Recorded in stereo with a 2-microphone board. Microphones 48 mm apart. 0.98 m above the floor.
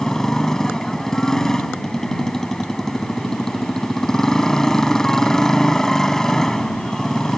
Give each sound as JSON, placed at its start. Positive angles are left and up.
{"t": 0.0, "sound": "a motorcycle", "side_deg": 10}